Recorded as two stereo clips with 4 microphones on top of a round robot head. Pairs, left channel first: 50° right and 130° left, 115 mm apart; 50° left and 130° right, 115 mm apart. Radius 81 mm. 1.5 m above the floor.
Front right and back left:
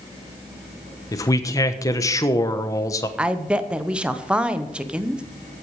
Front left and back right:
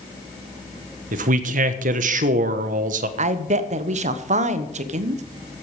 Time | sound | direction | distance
1.1 | a man speaking | 115° right | 1.1 m
3.2 | a woman speaking | 150° right | 1.1 m